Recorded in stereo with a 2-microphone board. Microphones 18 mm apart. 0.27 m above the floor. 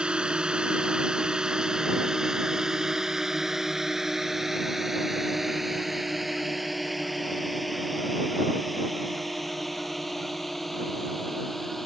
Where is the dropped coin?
No dropped coin in this recording.